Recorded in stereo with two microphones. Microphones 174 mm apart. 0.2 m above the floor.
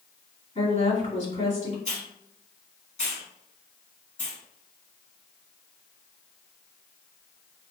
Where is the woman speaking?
45° left (ahead or behind), 1.9 m.